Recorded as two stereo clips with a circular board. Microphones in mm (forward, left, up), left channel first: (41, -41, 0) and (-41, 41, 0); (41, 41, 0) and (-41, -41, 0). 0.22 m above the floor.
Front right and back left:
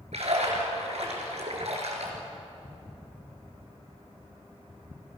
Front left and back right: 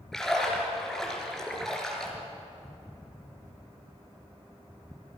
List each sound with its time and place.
0.1 s a splash: 130° left, 4.5 m